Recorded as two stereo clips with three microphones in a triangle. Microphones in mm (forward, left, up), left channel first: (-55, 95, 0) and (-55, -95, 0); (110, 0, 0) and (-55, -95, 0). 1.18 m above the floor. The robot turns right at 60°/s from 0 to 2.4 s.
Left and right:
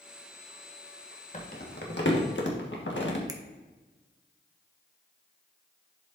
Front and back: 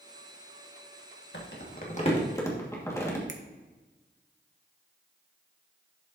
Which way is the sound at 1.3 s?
40° left.